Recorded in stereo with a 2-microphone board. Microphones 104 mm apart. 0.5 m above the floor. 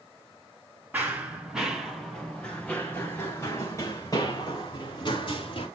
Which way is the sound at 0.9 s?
15° right (ahead or behind).